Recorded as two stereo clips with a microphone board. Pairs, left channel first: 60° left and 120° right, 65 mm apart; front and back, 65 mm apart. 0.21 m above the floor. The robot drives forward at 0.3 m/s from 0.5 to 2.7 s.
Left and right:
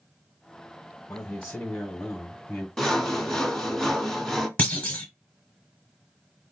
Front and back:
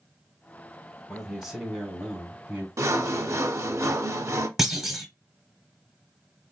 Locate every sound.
1.1 s a man speaking: 110° left, 1.1 m; by 2.7 s 145° left, 1.3 m
2.8 s sawing: 145° left, 0.5 m
4.6 s a clunk: 100° left, 0.9 m